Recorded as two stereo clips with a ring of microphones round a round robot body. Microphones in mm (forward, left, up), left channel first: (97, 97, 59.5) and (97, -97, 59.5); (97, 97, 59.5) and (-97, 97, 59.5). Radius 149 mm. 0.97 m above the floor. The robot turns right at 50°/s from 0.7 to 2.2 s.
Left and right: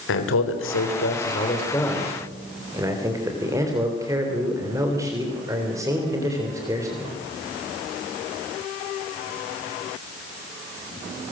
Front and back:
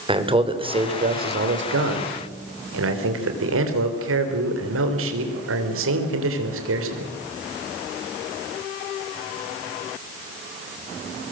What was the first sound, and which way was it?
A man speaking, 115° left.